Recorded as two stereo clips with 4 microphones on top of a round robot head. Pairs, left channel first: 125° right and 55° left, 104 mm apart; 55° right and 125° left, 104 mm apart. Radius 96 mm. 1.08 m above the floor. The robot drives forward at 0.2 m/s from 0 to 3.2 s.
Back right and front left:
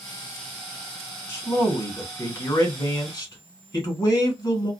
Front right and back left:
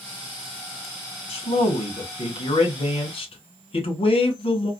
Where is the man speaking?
65° right, 1.6 m; by 4.7 s 80° right, 1.5 m.